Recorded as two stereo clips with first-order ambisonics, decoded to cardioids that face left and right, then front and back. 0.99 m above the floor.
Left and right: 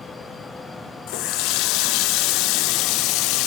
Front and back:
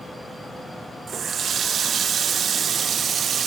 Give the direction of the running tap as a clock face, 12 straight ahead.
8 o'clock.